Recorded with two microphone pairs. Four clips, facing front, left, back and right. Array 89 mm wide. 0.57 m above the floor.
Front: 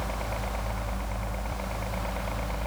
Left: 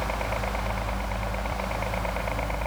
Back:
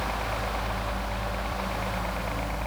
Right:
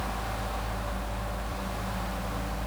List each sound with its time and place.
0.0 s a helicopter: 95° left